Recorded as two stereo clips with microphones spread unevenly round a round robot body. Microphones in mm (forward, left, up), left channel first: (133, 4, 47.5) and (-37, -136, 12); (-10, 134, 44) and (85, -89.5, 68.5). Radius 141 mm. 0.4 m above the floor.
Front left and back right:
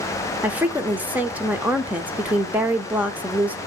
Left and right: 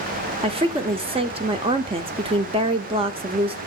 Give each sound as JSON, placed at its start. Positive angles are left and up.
{"t": 0.4, "sound": "a woman speaking", "azimuth_deg": -110, "distance_m": 0.8}